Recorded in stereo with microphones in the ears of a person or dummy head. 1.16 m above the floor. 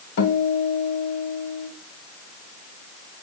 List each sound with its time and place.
0.2 s a guitar: 70° left (ahead or behind), 2 m